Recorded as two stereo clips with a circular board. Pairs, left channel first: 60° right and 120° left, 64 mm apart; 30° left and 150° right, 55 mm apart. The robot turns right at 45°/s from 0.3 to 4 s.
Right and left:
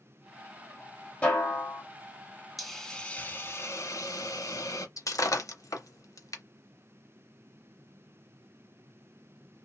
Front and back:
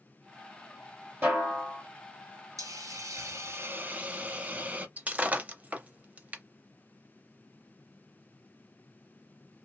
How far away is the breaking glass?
About 0.6 m.